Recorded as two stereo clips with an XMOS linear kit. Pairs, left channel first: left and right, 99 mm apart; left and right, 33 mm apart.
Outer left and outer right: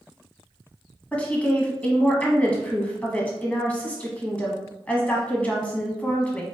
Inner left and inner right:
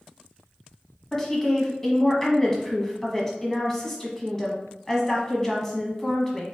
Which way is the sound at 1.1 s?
15° left (ahead or behind).